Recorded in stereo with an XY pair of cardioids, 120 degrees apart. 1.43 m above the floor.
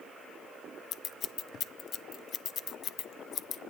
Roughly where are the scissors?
Ahead left.